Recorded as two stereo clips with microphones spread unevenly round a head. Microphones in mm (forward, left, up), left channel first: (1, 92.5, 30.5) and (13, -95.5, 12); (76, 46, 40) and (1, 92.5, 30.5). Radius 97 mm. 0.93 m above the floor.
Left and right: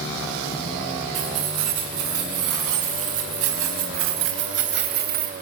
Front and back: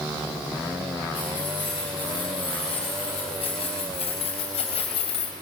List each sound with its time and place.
1.1 s keys jangling: 100° right, 7 m; by 5.3 s 40° right, 3 m